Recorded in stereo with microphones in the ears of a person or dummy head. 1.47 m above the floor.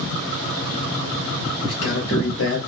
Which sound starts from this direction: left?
A man speaking, at 1.6 s.